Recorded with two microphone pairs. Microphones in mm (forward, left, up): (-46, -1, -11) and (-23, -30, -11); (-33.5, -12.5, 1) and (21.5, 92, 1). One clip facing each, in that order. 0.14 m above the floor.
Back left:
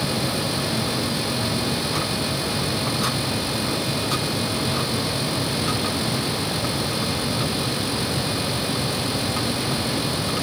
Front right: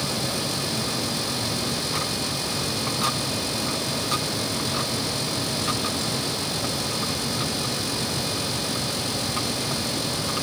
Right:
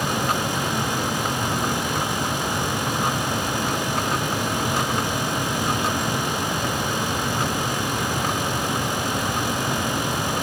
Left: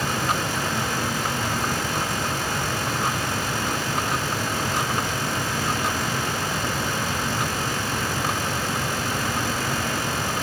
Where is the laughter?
No laughter in this recording.